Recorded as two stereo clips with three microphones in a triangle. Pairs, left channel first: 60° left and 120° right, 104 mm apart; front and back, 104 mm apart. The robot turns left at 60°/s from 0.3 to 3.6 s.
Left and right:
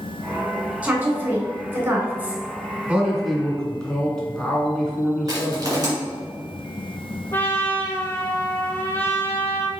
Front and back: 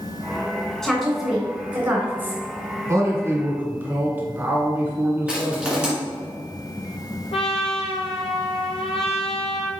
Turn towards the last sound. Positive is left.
turn(degrees=-10)